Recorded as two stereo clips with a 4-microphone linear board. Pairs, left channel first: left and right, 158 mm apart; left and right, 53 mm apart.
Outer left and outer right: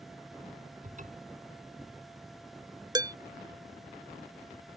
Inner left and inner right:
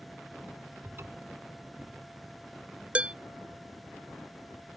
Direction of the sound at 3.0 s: 25° right (ahead or behind).